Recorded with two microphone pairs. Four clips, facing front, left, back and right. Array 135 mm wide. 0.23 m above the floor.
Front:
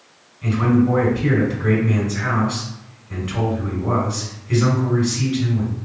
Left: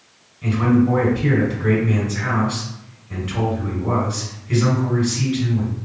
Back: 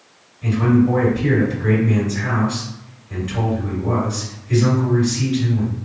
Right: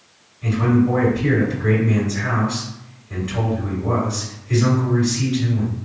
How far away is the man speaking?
About 2.0 m.